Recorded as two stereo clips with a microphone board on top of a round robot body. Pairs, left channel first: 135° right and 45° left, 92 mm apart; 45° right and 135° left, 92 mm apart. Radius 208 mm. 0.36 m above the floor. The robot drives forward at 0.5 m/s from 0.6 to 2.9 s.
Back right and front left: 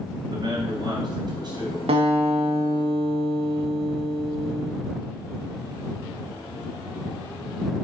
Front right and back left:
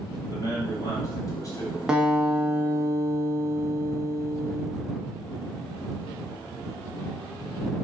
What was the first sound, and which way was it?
A man speaking, 5° left.